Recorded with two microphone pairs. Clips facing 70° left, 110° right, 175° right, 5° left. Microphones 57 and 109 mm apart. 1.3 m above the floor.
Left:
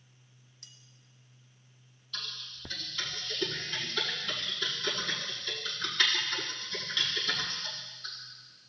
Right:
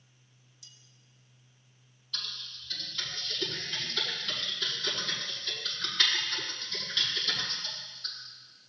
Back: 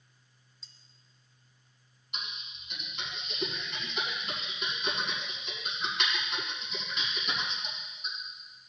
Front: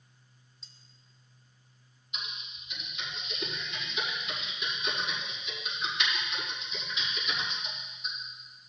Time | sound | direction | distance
0.6 | cutlery clinking | 95° left | 0.8 m
2.1 | typing on a keyboard | 160° left | 5 m